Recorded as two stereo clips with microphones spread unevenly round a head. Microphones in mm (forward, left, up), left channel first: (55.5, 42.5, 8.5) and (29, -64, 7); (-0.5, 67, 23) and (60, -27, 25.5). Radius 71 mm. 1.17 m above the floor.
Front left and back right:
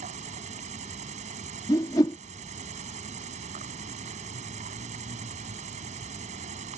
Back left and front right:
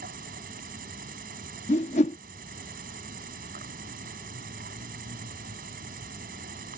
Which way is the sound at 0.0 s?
85° right.